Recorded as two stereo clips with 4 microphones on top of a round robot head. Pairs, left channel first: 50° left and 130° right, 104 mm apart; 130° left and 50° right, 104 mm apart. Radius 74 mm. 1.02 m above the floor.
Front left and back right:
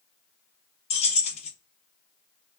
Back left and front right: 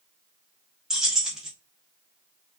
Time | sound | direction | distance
0.9 | keys jangling | 35° left | 0.8 m